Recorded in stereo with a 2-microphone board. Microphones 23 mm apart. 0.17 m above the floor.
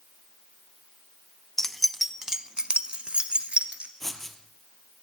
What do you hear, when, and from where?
1.6 s keys jangling: 20° left (ahead or behind), 0.7 m; by 3.9 s 70° right (ahead or behind), 1.7 m
4.0 s writing: 10° left (ahead or behind), 1.8 m